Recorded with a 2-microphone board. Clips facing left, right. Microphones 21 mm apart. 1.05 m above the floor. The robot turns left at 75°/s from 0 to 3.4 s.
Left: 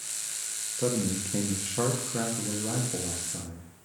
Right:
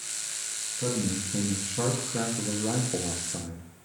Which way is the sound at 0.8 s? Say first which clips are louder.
Left 1 dB; 110° left.